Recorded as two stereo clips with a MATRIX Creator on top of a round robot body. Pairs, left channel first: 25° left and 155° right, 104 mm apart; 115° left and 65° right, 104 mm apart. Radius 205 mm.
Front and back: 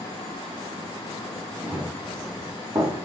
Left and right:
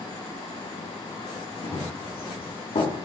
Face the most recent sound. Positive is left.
turn(degrees=145)